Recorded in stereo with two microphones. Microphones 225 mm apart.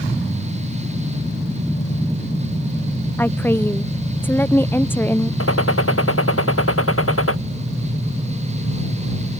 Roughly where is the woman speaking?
Centre.